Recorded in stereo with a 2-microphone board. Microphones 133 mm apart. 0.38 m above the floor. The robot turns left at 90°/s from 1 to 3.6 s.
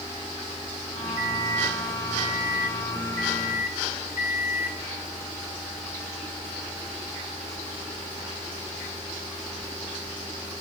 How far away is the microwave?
About 2.5 m.